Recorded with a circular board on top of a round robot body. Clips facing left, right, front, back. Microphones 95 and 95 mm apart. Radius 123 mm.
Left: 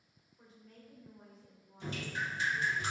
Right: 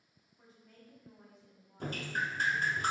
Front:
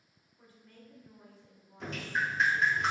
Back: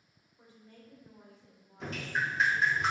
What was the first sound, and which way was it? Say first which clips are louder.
A woman speaking: left 2 dB, back 1 dB; 175° right.